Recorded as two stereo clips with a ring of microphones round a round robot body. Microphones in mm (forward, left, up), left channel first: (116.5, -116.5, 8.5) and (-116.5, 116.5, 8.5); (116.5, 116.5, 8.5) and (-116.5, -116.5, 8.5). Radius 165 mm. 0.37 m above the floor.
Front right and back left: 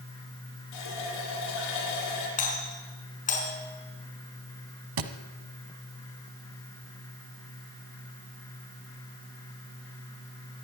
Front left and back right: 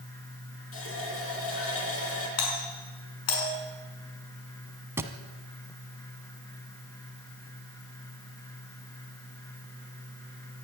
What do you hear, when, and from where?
0.7 s a running tap: 5° right, 8 m
2.4 s a doorbell: 20° left, 6 m
5.0 s a thud: 145° left, 1.5 m